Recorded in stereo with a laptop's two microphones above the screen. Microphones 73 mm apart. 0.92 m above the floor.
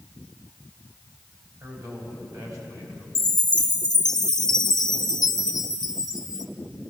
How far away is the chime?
About 0.7 m.